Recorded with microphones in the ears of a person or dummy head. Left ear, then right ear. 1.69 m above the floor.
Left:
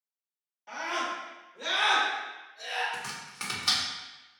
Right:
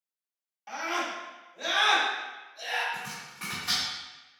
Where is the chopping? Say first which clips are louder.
Left 1 dB; 50° left (ahead or behind), 1.0 m.